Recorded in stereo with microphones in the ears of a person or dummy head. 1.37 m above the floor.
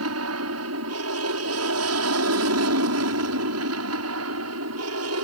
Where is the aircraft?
70° right (ahead or behind).